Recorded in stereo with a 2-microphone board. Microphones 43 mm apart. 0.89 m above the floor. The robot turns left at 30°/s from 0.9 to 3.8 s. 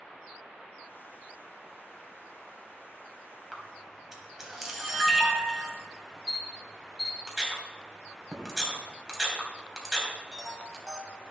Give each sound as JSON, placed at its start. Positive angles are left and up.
{"t": 3.5, "sound": "a camera shutter", "side_deg": -5, "distance_m": 2.0}